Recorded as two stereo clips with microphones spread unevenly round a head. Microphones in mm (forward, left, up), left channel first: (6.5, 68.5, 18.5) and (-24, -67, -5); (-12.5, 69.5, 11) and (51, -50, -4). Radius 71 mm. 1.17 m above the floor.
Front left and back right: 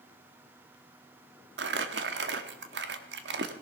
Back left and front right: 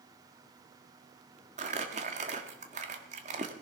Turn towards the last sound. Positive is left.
turn(degrees=-110)